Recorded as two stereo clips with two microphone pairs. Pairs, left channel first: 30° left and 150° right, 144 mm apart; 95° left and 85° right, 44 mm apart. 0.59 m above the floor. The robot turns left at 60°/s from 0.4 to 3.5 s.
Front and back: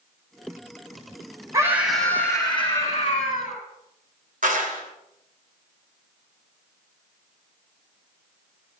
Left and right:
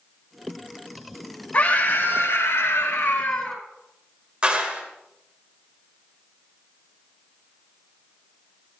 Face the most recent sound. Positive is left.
turn(degrees=-150)